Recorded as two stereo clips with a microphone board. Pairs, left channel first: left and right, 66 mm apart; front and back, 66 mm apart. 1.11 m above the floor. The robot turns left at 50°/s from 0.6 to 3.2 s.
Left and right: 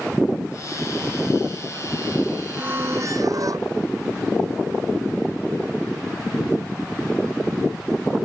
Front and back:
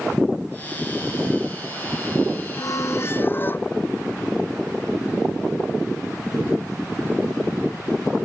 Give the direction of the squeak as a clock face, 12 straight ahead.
1 o'clock.